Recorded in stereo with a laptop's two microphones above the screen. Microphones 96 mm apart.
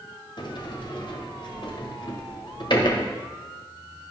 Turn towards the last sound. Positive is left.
turn(degrees=50)  # may be behind; listen again after turning